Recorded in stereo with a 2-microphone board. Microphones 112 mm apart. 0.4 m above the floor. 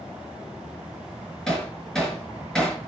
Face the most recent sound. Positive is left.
turn(degrees=5)  # may be behind; listen again after turning